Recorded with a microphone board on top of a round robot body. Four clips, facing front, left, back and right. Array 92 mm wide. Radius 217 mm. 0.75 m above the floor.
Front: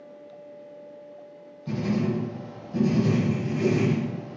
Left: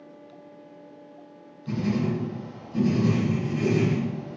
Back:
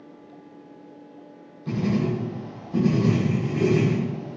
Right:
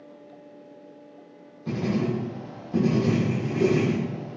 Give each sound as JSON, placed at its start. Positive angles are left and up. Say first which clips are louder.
{"t": 1.7, "sound": "writing", "louder": "even, back 2 dB", "azimuth_deg": -115, "distance_m": 0.7}